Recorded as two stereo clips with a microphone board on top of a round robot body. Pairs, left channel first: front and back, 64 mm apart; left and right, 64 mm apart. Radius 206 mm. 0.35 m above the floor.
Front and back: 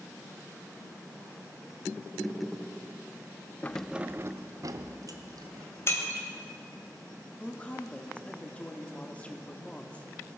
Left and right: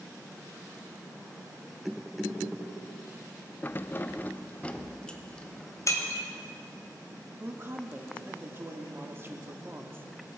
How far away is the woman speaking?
About 1.6 m.